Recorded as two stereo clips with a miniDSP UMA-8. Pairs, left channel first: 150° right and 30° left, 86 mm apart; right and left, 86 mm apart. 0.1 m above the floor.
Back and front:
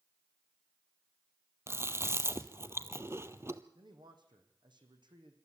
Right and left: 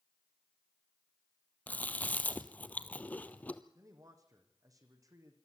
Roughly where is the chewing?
Ahead right.